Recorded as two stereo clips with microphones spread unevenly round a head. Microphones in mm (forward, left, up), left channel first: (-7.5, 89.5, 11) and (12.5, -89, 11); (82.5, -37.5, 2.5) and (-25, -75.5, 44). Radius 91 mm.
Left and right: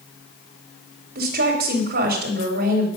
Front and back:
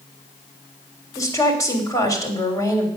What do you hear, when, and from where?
1.1 s a woman speaking: 45° right, 3 m